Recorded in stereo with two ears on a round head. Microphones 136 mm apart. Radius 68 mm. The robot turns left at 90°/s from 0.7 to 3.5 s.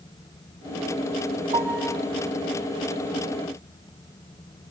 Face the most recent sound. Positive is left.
turn(degrees=30)